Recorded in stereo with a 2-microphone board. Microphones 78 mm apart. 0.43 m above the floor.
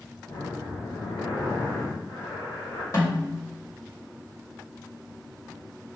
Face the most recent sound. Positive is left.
turn(degrees=45)  # may be behind; listen again after turning